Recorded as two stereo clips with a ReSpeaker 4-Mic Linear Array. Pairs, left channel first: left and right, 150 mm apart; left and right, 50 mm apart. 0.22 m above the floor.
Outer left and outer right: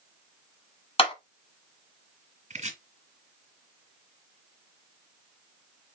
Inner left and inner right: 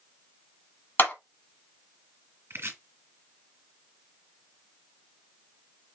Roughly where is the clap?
Left.